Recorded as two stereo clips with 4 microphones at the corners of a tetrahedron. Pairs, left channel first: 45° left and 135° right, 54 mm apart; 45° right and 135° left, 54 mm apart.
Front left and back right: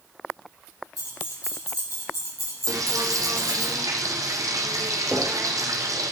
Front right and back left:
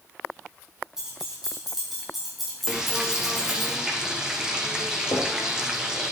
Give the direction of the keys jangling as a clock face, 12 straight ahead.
10 o'clock.